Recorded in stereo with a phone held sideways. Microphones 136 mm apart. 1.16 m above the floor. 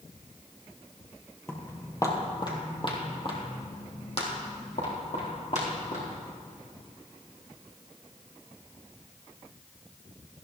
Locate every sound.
1.5 s footsteps: 15° left (ahead or behind), 2 m; by 6.0 s 60° left (ahead or behind), 4.5 m